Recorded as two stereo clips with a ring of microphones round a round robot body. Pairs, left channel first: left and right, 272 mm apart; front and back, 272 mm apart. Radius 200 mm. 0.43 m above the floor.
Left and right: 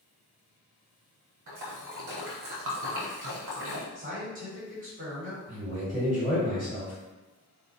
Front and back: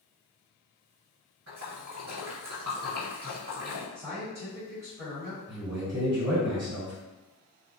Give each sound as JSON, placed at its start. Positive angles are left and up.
{"t": 1.5, "sound": "a splash", "azimuth_deg": -120, "distance_m": 0.6}
{"t": 4.0, "sound": "a man speaking", "azimuth_deg": -110, "distance_m": 1.5}
{"t": 5.5, "sound": "a man speaking", "azimuth_deg": 145, "distance_m": 1.6}